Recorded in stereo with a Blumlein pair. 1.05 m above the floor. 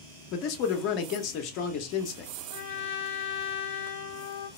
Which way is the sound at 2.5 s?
60° left.